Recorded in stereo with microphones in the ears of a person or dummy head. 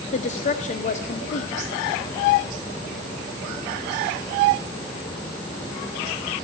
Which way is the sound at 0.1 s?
40° left (ahead or behind).